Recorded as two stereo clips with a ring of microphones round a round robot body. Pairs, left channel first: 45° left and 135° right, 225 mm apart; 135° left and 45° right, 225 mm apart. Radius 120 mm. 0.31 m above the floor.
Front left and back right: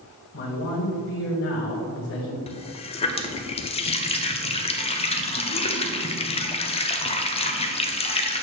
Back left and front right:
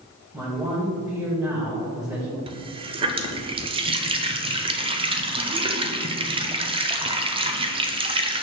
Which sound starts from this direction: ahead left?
A man speaking, at 0.3 s.